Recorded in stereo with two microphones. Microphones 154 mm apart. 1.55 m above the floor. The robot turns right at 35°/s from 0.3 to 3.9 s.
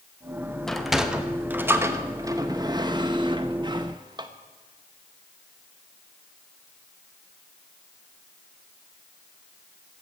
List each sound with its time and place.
0.7 s a sliding door: 5° left (ahead or behind), 0.9 m; by 4.3 s 30° right (ahead or behind), 0.9 m